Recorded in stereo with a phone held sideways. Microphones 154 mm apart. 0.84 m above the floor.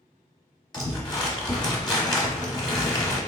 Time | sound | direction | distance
0.7 | crumpling | 25° left (ahead or behind) | 1.1 m